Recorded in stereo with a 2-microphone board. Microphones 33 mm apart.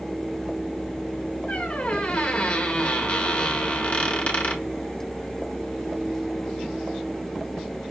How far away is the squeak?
About 1.1 m.